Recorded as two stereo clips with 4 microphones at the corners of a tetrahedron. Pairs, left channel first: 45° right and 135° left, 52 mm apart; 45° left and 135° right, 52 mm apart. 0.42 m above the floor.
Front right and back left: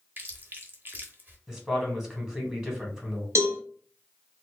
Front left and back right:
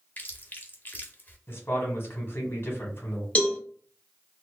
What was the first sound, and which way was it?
Chewing, 95° left.